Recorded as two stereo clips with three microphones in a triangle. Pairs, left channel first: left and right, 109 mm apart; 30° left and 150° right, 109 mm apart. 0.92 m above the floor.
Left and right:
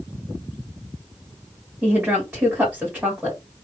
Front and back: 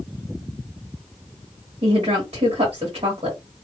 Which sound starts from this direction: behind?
A woman speaking, at 1.8 s.